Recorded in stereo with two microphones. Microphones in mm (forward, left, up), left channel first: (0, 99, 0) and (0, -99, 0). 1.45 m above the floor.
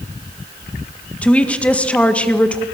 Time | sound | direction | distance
1.2 | a woman speaking | 5° left (ahead or behind) | 1.9 m